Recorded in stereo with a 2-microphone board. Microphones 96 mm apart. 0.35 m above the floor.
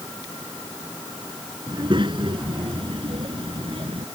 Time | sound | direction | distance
1.7 | a child speaking | 60° right (ahead or behind) | ?